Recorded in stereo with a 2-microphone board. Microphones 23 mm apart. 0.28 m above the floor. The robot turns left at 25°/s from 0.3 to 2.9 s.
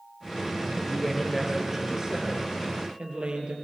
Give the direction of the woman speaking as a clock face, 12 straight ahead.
12 o'clock.